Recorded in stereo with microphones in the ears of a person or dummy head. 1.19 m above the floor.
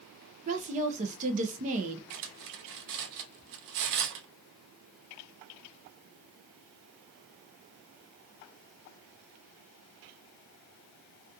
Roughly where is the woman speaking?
Right.